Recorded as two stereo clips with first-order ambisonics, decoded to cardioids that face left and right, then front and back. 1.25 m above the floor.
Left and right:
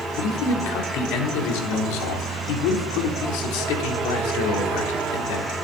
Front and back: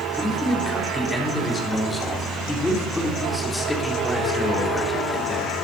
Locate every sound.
0.2 s a man speaking: 80° left, 3.5 m